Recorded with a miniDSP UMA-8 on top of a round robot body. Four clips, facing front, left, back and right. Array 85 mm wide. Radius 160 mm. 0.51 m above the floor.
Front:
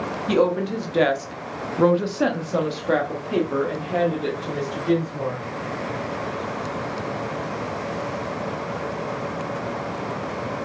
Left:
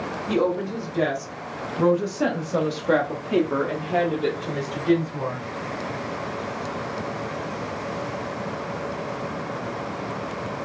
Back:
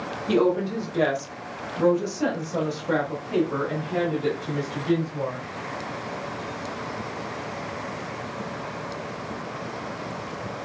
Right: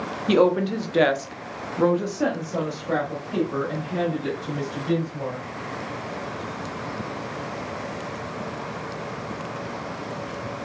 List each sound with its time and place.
0.3 s a woman speaking: 70° right, 1.3 m; by 5.4 s 70° left, 2 m